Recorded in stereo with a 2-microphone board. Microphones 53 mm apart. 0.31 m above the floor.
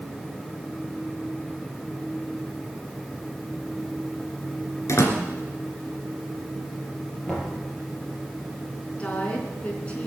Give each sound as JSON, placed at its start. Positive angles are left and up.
{"t": 4.9, "sound": "a door slam", "side_deg": 70, "distance_m": 2.5}
{"t": 7.3, "sound": "knocking", "side_deg": 5, "distance_m": 6.0}
{"t": 9.0, "sound": "a woman speaking", "side_deg": 25, "distance_m": 4.0}